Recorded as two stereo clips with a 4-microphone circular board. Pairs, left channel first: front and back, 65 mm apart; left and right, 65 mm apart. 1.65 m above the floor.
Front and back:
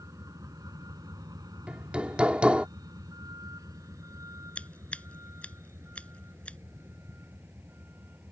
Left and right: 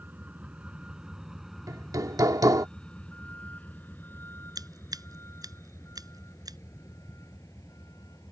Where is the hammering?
110° right.